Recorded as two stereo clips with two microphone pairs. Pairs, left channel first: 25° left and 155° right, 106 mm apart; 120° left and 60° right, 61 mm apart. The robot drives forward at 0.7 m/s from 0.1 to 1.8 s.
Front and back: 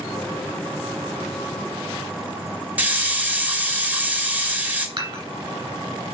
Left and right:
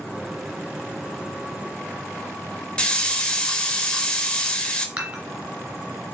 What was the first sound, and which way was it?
A hiss, 155° left.